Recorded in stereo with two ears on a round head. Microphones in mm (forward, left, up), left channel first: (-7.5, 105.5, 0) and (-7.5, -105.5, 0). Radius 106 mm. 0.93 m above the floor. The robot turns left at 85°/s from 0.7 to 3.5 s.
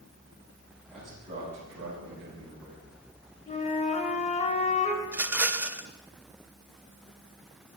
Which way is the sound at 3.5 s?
25° left (ahead or behind).